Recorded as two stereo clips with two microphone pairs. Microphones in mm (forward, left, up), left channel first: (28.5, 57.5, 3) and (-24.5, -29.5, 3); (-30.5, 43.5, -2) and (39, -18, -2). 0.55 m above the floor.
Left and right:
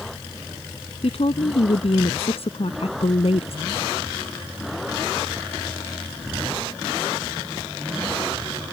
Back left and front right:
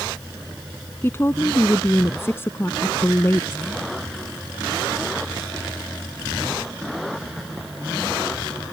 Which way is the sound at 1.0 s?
75° left.